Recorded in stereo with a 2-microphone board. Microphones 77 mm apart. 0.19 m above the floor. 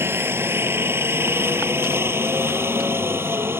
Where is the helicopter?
30° right (ahead or behind).